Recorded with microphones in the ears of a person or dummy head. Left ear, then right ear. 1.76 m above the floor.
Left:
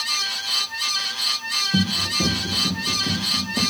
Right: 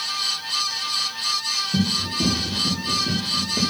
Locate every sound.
1.7 s running footsteps: 35° left (ahead or behind), 3.5 m; by 3.6 s 20° left (ahead or behind), 3.5 m